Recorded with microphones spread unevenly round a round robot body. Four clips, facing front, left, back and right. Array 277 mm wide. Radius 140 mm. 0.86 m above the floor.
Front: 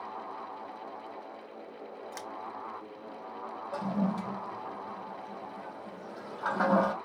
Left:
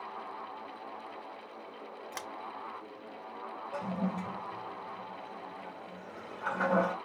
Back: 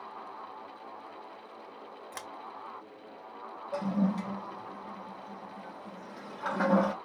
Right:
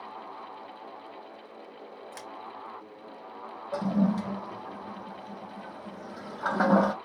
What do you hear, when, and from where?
2.1 s scissors: 110° left, 0.9 m
3.7 s a toilet flushing: 95° right, 0.6 m